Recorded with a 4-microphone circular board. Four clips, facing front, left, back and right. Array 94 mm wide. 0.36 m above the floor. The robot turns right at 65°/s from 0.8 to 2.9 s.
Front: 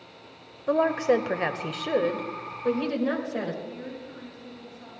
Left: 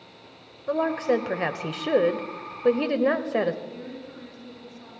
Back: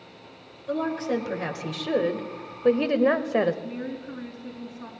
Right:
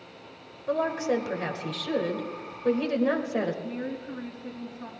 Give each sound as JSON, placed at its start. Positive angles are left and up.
{"t": 0.7, "sound": "a woman speaking", "azimuth_deg": 10, "distance_m": 1.1}
{"t": 3.6, "sound": "a woman speaking", "azimuth_deg": -150, "distance_m": 4.0}